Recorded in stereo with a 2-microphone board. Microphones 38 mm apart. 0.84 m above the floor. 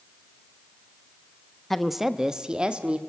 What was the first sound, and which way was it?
A woman speaking, 5° left (ahead or behind).